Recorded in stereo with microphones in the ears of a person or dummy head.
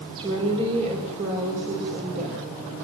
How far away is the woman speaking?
About 4 m.